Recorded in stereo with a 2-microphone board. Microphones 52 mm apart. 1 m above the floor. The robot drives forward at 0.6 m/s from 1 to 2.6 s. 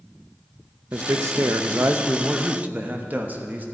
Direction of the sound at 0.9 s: 65° right (ahead or behind).